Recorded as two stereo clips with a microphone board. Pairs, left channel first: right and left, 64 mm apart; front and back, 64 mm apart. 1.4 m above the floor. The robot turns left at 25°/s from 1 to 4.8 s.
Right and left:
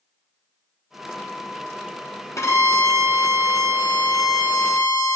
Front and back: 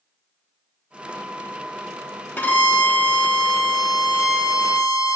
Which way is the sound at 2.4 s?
55° right.